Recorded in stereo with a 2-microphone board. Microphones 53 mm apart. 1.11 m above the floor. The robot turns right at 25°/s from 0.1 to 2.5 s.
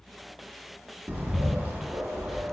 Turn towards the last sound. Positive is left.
turn(degrees=-45)  # may be behind; listen again after turning